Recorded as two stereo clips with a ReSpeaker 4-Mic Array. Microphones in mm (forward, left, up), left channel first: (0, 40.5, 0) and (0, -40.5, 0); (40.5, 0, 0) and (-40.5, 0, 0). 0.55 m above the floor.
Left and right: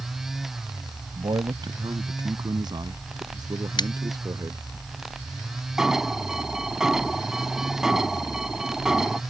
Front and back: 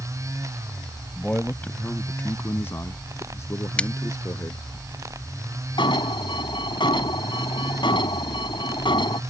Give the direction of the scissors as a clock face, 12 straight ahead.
9 o'clock.